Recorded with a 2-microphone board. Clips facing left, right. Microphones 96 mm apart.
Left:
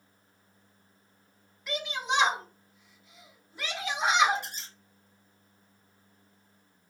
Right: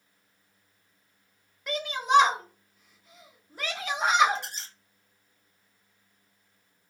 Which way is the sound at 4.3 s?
80° right.